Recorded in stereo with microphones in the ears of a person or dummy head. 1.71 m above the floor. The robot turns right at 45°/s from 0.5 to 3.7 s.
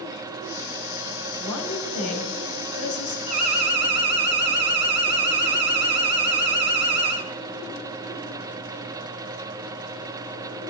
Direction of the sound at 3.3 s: 35° right (ahead or behind).